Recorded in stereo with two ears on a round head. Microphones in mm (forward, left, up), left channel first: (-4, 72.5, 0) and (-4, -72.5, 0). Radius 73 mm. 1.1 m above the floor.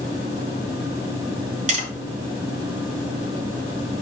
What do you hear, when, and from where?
1.7 s tapping: 45° right (ahead or behind), 5 m